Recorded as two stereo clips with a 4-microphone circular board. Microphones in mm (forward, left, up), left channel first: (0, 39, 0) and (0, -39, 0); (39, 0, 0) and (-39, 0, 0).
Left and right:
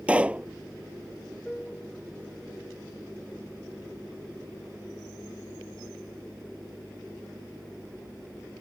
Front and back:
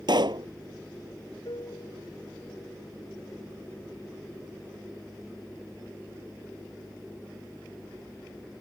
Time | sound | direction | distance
0.1 | a pop | 165° right | ?
1.4 | a piano | 10° left | ?